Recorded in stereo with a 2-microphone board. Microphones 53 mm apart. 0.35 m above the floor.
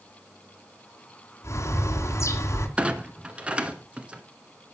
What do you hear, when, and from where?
1.4 s a bird: 65° left (ahead or behind), 2.5 m
2.8 s a clunk: 25° right (ahead or behind), 1.4 m